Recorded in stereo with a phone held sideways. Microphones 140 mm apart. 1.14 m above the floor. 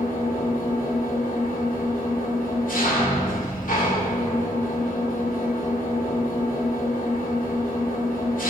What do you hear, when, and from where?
0.0 s an engine running: 70° left (ahead or behind), 2 m